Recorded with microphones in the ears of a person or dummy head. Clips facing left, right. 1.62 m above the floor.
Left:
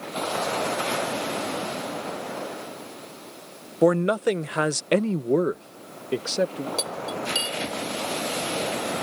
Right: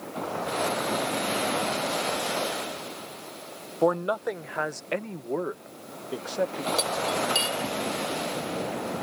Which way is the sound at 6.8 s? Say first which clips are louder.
Right 3 dB; 5° left (ahead or behind).